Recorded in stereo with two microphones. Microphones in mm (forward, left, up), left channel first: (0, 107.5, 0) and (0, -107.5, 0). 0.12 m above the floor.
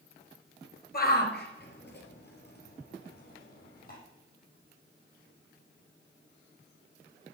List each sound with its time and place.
0.9 s a shout: 45° left (ahead or behind), 2 m